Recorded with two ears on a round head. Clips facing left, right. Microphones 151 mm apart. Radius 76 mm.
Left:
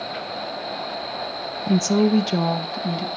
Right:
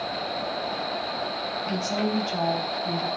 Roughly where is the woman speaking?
Left.